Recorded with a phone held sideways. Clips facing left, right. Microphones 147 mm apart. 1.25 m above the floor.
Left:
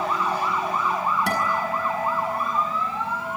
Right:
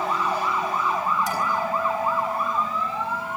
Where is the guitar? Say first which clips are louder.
Even; 70° left (ahead or behind), 6 m.